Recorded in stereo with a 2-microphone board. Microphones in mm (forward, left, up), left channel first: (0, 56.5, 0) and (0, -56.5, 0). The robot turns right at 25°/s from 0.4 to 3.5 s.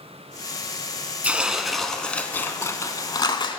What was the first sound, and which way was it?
Tearing paper, 10° right.